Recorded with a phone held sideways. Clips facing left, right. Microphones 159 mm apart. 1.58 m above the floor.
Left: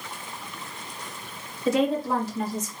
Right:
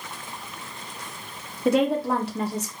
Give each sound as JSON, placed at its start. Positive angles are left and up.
{"t": 1.6, "sound": "a woman speaking", "side_deg": -60, "distance_m": 1.7}